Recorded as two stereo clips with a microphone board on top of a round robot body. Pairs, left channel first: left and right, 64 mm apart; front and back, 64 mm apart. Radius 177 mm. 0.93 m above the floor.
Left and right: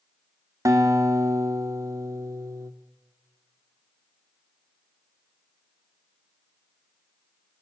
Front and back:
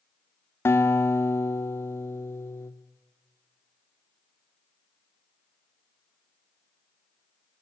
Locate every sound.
0.7 s a guitar: 55° right, 1.4 m